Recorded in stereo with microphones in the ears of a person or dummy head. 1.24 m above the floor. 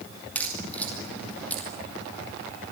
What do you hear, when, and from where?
0.3 s a crack: 10° left (ahead or behind), 2.5 m